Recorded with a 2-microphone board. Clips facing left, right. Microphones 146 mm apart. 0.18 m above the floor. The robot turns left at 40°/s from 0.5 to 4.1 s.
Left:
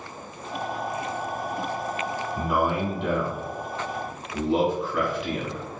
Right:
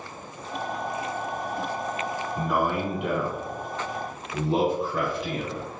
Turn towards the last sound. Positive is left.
turn(degrees=-25)  # may be behind; listen again after turning